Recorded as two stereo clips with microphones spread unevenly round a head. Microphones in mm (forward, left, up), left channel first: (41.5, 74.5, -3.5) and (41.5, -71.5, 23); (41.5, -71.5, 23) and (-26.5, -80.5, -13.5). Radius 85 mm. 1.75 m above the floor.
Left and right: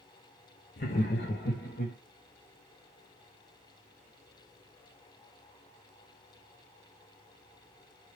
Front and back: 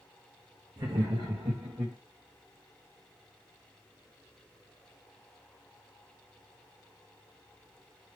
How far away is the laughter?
About 0.7 m.